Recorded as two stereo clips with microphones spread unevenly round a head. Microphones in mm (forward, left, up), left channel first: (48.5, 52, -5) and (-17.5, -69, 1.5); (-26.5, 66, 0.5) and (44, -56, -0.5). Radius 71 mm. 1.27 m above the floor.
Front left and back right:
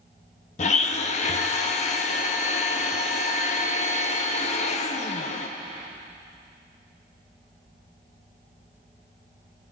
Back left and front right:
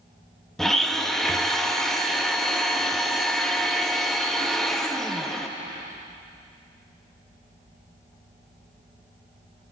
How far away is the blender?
About 0.8 m.